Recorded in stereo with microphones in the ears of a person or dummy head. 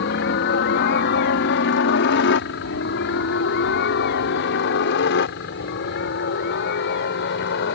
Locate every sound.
0.0 s a helicopter: 60° left (ahead or behind); by 7.8 s 65° left (ahead or behind)